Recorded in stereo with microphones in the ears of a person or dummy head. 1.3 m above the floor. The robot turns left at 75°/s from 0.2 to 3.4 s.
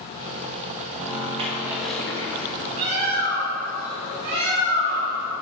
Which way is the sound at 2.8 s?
55° right.